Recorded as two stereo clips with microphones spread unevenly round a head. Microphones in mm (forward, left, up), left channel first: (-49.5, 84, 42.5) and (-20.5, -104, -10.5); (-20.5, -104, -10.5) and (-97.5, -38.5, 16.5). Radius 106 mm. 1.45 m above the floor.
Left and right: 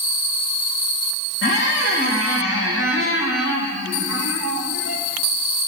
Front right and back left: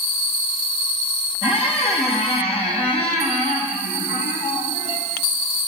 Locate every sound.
1.4 s a squeak: 65° left, 1.5 m